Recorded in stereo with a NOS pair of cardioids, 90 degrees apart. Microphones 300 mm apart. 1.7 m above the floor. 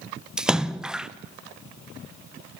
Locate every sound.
0.4 s a splash: straight ahead, 1.4 m